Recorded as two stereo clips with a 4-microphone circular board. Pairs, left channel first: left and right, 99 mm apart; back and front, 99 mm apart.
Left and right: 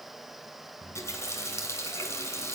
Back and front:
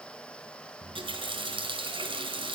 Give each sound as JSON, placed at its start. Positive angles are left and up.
{"t": 0.8, "sound": "a running tap", "azimuth_deg": 30, "distance_m": 3.0}